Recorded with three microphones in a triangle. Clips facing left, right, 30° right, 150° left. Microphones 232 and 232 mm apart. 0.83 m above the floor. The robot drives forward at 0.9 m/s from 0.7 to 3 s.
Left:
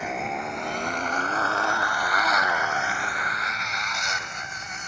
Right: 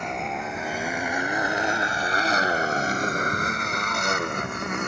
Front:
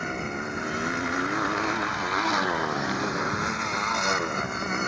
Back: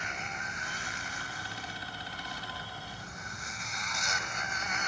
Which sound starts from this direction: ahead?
A motorcycle, at 0.0 s.